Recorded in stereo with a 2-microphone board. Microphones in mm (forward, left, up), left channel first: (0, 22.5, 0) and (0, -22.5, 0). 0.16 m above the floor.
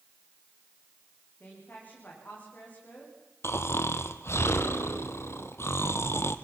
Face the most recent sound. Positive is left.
turn(degrees=65)  # may be behind; listen again after turning